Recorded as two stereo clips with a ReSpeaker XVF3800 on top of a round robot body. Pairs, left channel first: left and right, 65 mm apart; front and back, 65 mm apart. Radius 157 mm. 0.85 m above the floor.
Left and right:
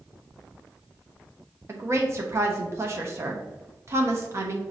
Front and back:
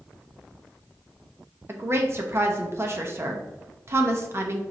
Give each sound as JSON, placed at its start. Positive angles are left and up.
{"t": 1.7, "sound": "a woman speaking", "azimuth_deg": -135, "distance_m": 1.0}